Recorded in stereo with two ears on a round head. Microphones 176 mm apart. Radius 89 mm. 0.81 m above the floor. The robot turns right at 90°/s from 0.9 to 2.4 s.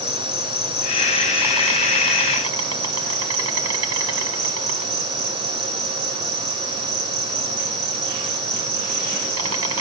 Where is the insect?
145° left, 5 m; by 9.8 s 80° right, 5 m.